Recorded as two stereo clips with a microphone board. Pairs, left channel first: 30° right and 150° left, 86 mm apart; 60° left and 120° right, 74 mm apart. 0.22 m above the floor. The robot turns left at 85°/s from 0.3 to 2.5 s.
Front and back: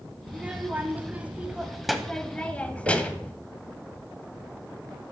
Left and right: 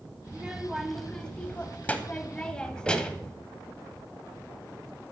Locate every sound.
0.3 s a child speaking: 165° right, 1.0 m; by 3.3 s 10° left, 1.0 m
2.9 s knocking: 175° right, 4 m